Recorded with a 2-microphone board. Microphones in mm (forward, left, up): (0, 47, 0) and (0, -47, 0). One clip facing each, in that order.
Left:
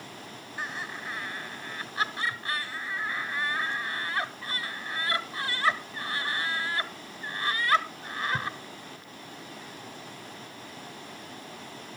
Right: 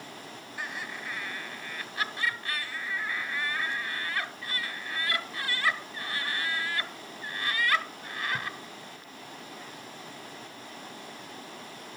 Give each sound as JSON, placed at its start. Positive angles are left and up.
{"t": 0.6, "sound": "laughter", "side_deg": 20, "distance_m": 1.4}